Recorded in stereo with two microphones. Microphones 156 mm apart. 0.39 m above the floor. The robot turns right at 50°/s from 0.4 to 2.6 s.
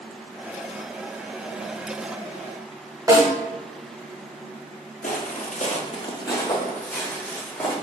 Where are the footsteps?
60° left (ahead or behind), 0.7 m; by 7.7 s 5° left (ahead or behind), 1.6 m.